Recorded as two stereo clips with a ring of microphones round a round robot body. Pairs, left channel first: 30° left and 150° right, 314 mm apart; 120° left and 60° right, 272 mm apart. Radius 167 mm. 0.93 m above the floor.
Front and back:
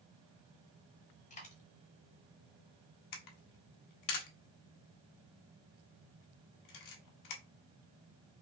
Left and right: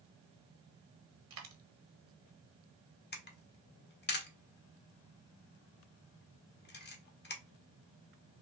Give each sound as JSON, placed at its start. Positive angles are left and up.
{"t": 1.3, "sound": "a dropped coin", "azimuth_deg": -35, "distance_m": 1.1}
{"t": 3.1, "sound": "a camera shutter", "azimuth_deg": 65, "distance_m": 1.2}